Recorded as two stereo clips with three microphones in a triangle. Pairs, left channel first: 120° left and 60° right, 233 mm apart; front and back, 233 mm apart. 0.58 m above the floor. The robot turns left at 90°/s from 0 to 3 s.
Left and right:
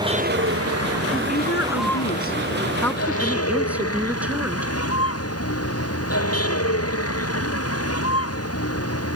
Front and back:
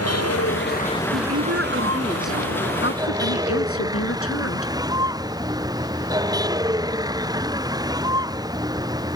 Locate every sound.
0.0 s a vehicle: 15° left; by 9.2 s 105° left
1.1 s a woman speaking: 165° right; by 4.7 s 25° left